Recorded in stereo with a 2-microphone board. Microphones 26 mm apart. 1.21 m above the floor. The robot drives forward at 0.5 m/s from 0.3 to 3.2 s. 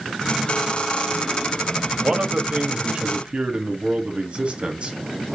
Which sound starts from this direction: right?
A man speaking, at 2.0 s.